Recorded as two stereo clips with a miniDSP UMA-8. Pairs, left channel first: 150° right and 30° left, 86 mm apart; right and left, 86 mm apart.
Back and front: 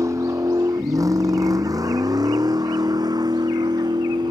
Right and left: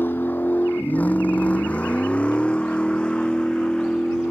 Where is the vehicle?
25° right; by 4.3 s 10° right.